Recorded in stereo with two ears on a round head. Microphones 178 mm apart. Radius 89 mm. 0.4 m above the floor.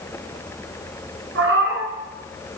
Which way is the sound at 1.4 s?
65° right (ahead or behind).